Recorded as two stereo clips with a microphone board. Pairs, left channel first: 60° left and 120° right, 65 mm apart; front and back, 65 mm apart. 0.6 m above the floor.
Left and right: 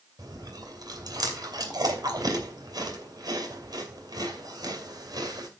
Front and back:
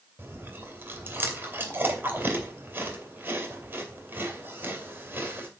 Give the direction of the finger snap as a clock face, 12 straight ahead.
I don't hear a finger snap.